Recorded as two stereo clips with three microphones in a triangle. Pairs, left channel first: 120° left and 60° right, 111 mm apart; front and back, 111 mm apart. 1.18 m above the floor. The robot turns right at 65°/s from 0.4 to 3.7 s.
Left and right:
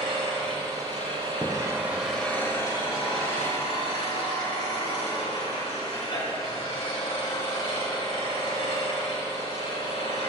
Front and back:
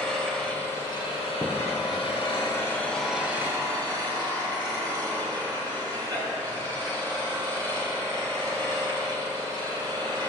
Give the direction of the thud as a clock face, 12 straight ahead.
11 o'clock.